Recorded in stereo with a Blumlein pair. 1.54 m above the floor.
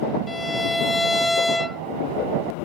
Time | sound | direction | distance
0.3 | a violin | 5° left | ?